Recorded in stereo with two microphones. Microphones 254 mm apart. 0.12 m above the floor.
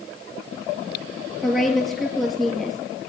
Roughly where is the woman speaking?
Centre.